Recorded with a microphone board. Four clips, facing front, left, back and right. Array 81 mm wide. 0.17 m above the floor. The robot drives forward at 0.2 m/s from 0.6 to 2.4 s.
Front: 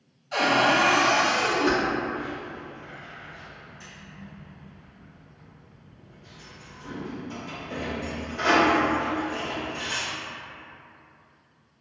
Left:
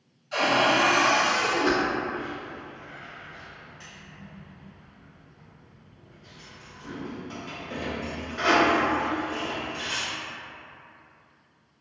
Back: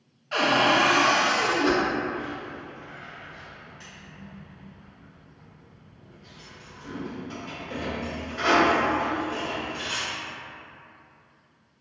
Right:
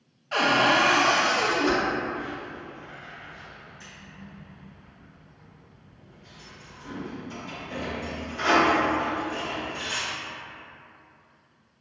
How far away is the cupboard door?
About 0.6 m.